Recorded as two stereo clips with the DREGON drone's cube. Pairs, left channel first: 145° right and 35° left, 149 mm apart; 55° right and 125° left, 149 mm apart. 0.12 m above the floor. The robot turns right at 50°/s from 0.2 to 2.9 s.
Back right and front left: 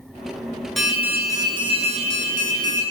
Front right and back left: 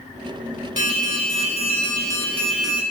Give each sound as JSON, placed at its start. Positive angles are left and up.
{"t": 0.8, "sound": "an alarm", "azimuth_deg": -55, "distance_m": 1.3}